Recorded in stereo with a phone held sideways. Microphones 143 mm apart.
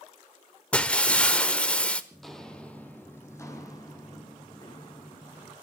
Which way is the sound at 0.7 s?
10° left (ahead or behind).